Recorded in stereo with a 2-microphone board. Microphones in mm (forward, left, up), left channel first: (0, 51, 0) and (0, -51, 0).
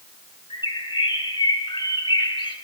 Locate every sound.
0.5 s a bird: 60° left (ahead or behind), 4 m